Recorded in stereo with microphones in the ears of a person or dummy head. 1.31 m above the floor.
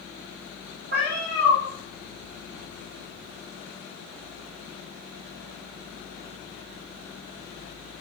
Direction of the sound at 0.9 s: 50° right (ahead or behind).